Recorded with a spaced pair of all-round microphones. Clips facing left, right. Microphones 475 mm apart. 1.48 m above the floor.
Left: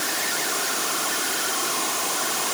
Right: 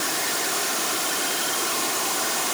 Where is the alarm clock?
I don't hear an alarm clock.